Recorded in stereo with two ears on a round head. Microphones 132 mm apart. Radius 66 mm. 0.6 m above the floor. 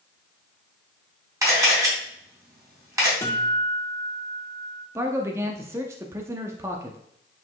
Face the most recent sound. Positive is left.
turn(degrees=-20)  # may be behind; listen again after turning